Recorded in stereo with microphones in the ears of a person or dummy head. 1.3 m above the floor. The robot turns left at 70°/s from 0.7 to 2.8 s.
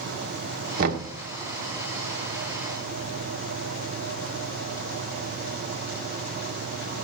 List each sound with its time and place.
0.8 s knocking: 45° right (ahead or behind), 1.3 m; by 1.1 s 60° right (ahead or behind), 1.3 m